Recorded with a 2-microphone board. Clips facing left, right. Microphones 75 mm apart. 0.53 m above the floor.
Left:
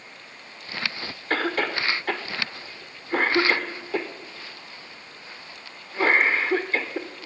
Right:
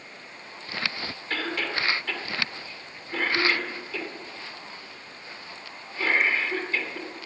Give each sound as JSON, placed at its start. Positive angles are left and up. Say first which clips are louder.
{"t": 1.3, "sound": "a cough", "louder": "left 5 dB", "side_deg": 40, "distance_m": 1.5}